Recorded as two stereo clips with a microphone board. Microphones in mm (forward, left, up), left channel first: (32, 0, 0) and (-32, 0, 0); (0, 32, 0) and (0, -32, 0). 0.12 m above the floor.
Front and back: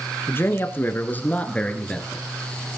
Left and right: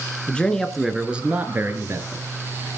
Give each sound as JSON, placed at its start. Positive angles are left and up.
{"t": 0.3, "sound": "a man speaking", "azimuth_deg": 25, "distance_m": 2.0}